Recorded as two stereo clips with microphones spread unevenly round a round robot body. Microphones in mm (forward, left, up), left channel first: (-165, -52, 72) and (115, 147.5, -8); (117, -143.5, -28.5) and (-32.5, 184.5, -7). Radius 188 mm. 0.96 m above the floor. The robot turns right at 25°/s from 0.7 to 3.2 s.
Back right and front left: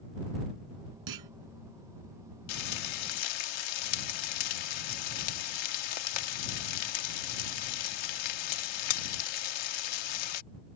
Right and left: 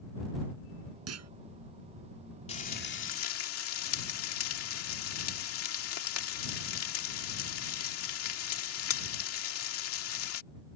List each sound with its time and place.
1.1 s a clunk: 65° left; by 1.3 s 70° left
2.5 s frying: 140° right; by 10.4 s 120° right